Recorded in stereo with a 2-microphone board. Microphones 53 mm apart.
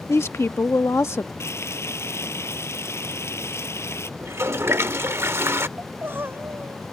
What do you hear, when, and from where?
0.1 s a woman speaking: 55° left (ahead or behind)
1.4 s frying: 55° left (ahead or behind)
4.2 s a toilet flushing: 50° right (ahead or behind)
5.8 s crying: 40° right (ahead or behind)